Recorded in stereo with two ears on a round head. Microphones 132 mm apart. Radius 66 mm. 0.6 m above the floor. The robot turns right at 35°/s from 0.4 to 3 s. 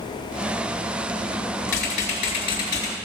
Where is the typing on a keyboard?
115° left, 3.5 m; by 3.0 s 160° left, 3.5 m.